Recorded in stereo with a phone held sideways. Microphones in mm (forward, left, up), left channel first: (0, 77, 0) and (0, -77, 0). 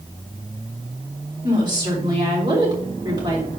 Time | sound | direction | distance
1.4 | a woman speaking | 30° right (ahead or behind) | 3 m